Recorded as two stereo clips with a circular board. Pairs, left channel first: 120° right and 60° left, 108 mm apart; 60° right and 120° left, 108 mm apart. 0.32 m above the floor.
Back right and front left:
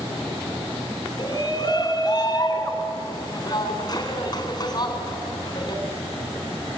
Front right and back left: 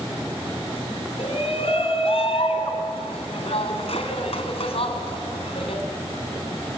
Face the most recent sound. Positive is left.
turn(degrees=-75)